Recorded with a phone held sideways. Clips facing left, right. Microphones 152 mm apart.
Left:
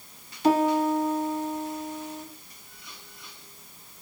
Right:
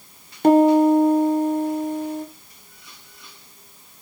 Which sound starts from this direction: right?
A piano, at 0.4 s.